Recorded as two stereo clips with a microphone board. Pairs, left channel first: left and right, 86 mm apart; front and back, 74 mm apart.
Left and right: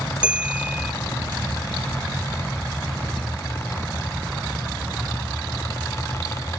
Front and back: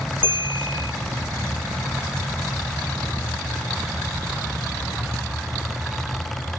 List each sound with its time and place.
0.2 s a bell: 15° right